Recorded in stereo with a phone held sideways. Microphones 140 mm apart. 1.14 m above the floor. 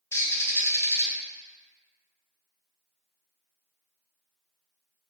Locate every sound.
0.1 s a bird: 20° left (ahead or behind), 0.5 m